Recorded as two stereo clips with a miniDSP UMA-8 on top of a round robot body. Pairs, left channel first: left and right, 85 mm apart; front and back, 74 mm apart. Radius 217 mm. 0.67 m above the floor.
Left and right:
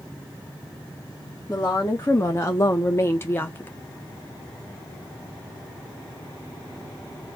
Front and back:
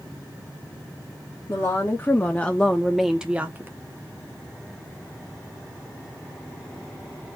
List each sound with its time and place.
1.5 s a woman speaking: 35° left, 1.6 m; by 3.7 s 145° left, 1.2 m